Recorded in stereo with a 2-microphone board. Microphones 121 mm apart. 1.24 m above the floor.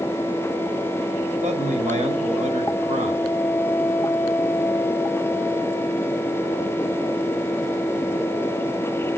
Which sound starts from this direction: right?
A man speaking, at 1.4 s.